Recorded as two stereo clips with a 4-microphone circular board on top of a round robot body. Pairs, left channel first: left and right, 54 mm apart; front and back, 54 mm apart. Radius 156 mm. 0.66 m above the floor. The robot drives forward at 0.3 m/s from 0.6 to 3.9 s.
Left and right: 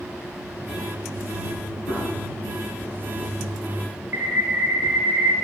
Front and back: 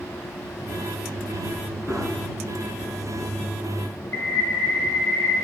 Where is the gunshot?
80° left, 5 m.